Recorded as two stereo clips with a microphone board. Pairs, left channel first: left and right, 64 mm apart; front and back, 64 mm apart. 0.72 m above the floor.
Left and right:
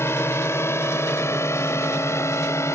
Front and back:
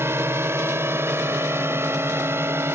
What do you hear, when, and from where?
0.0 s a drone: 135° left; by 2.8 s 130° left